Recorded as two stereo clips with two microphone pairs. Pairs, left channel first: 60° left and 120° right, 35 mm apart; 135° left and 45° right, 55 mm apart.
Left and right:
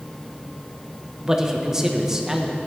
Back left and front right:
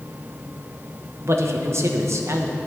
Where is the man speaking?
45° right, 1.2 m.